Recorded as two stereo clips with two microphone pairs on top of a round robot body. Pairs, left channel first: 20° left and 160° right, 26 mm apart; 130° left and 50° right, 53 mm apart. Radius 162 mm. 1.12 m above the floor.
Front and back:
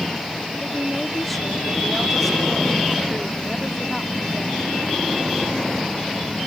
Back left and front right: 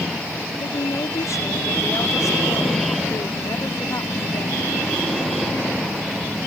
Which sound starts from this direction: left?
A woman speaking, at 0.6 s.